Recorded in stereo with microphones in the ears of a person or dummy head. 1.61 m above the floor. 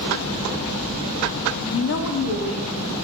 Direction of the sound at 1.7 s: 20° left (ahead or behind).